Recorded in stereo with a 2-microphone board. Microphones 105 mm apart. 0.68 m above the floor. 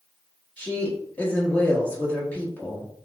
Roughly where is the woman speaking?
Centre.